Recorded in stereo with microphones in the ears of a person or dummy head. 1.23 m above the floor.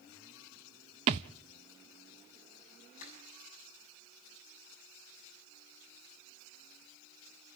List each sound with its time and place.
1.1 s a thud: 25° right (ahead or behind), 0.5 m
3.0 s crushing: 50° left (ahead or behind), 6.5 m